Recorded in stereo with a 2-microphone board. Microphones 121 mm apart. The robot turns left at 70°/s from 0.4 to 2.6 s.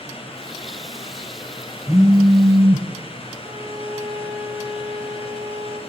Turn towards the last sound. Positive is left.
turn(degrees=-25)  # may be behind; listen again after turning